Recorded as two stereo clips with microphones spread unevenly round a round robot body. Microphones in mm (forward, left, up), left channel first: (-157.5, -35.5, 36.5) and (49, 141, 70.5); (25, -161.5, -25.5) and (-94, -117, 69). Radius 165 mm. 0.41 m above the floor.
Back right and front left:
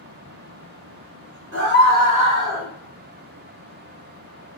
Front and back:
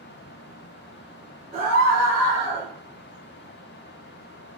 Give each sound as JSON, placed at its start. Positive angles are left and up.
{"t": 1.5, "sound": "a scream", "azimuth_deg": 85, "distance_m": 2.0}